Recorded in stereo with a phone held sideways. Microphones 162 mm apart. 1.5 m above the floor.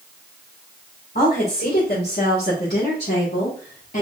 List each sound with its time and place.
1.1 s a woman speaking: 80° left, 2 m; by 4.0 s 55° left (ahead or behind), 1.3 m